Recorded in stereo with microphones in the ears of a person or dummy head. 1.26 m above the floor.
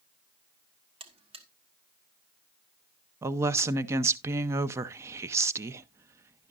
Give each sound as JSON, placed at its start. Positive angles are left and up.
{"t": 1.0, "sound": "a buzzer", "side_deg": -30, "distance_m": 1.1}
{"t": 3.2, "sound": "a woman speaking", "side_deg": -20, "distance_m": 0.6}